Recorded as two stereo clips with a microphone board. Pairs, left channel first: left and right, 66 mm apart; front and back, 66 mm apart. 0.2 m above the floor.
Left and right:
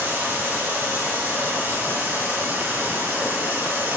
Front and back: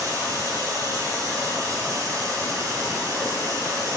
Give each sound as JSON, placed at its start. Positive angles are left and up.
{"t": 0.0, "sound": "running water", "azimuth_deg": -150, "distance_m": 2.5}